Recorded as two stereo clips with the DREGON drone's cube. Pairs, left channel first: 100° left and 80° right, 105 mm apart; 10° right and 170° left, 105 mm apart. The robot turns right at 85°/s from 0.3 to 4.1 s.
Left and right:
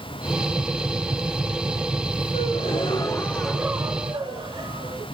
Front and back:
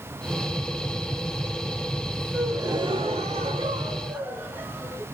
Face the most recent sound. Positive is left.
turn(degrees=-115)